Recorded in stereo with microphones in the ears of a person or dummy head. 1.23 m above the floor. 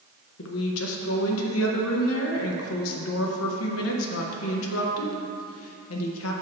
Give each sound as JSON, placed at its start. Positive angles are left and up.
{"t": 0.4, "sound": "a woman speaking", "side_deg": 85, "distance_m": 0.9}